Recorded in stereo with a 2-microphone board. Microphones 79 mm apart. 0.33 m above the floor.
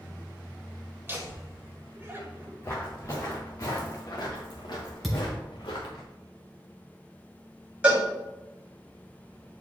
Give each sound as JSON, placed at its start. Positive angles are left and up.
{"t": 1.1, "sound": "laughter", "side_deg": -30, "distance_m": 1.7}
{"t": 2.6, "sound": "footsteps", "side_deg": 30, "distance_m": 2.5}
{"t": 5.0, "sound": "a thud", "side_deg": 0, "distance_m": 2.0}
{"t": 7.8, "sound": "a cowbell", "side_deg": -15, "distance_m": 2.5}